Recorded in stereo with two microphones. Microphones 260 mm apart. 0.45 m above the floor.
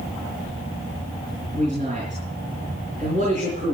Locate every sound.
1.5 s a man speaking: 30° right (ahead or behind), 6 m